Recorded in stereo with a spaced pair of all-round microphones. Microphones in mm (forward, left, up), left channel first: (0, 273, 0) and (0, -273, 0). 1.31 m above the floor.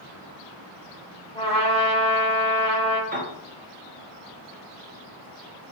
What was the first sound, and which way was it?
A trumpet, 10° left (ahead or behind).